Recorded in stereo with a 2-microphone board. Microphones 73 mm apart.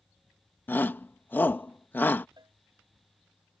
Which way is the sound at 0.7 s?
25° left (ahead or behind).